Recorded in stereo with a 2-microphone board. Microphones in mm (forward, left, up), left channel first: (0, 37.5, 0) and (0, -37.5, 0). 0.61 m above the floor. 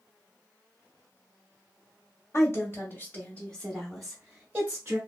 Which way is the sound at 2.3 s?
40° left (ahead or behind).